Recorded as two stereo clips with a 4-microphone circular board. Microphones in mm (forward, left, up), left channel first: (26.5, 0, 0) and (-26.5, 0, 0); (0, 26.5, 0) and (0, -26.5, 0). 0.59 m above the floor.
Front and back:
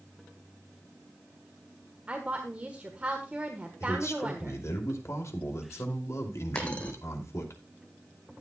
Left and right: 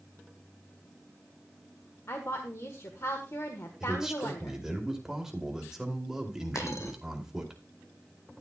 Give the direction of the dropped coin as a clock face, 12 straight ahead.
10 o'clock.